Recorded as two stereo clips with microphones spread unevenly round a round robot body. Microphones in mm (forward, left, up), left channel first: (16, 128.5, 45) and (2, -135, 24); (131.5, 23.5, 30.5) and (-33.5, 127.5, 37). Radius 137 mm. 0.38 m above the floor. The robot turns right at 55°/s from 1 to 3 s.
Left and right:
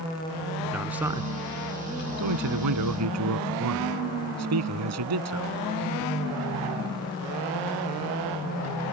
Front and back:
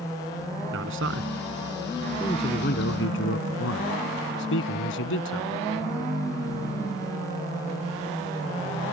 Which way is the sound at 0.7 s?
175° right.